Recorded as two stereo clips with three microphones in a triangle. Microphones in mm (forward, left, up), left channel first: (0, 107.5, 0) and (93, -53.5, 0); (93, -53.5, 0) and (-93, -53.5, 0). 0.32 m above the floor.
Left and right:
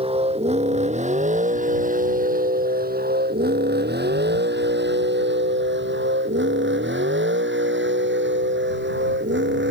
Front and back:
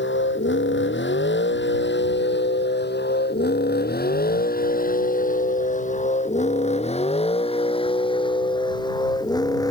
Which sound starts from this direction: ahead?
A vehicle, at 0.0 s.